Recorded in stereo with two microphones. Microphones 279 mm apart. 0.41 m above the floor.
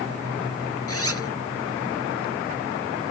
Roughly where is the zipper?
Left.